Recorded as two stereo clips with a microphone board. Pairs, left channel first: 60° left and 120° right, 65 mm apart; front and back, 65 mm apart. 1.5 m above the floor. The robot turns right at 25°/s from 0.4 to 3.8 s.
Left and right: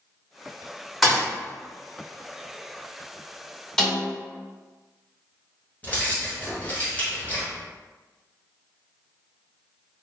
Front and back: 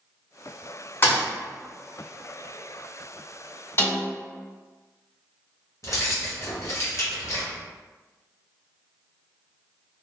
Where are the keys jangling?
5° left, 0.8 m.